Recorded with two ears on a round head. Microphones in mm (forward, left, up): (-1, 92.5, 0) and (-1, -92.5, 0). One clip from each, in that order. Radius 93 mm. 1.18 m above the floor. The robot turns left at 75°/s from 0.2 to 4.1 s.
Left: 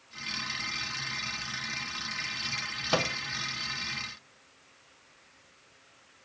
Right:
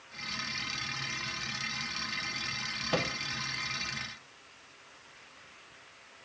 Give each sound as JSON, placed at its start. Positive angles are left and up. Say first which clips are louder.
{"t": 2.9, "sound": "a microwave", "louder": "left 4 dB", "side_deg": 35, "distance_m": 0.6}